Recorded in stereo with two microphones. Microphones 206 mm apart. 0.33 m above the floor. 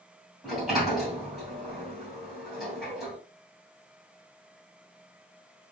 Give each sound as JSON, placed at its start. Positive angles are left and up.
{"t": 0.4, "sound": "a sliding door", "side_deg": 0, "distance_m": 2.5}